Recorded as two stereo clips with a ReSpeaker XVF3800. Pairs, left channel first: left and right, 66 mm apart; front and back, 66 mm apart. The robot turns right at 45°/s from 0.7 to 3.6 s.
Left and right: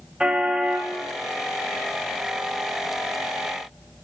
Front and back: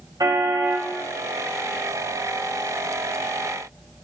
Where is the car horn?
165° right, 3 m; by 0.9 s 155° right, 3 m.